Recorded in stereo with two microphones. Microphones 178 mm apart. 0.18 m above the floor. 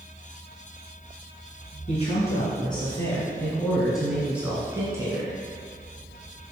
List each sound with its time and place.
1.9 s a man speaking: 40° left (ahead or behind), 2 m; by 5.3 s 20° right (ahead or behind), 2.5 m